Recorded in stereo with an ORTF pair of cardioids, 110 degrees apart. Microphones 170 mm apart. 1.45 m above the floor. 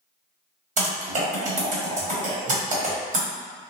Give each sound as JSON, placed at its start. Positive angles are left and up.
{"t": 0.8, "sound": "typing on a keyboard", "azimuth_deg": -50, "distance_m": 1.3}